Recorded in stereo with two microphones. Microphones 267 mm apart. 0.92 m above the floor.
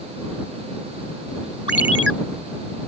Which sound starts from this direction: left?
A ringtone, at 1.7 s.